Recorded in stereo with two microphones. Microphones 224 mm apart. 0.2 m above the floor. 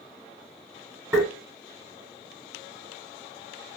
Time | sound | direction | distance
1.1 | tapping | 15° right (ahead or behind) | 1.5 m